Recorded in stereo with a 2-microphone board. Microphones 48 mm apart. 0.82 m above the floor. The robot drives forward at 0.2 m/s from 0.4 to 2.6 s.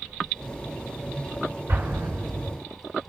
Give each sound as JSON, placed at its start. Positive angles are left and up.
{"t": 1.7, "sound": "an explosion", "side_deg": -65, "distance_m": 2.0}